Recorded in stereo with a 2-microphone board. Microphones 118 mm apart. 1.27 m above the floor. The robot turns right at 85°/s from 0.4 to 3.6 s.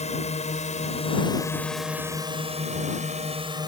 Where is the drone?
70° left (ahead or behind); by 3.7 s 40° right (ahead or behind).